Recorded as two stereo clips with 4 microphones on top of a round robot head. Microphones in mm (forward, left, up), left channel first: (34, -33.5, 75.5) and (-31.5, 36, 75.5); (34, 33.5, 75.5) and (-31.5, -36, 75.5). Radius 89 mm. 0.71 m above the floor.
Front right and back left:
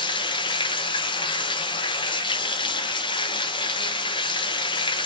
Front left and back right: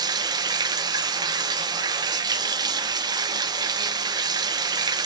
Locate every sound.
0.0 s running water: 85° right, 0.7 m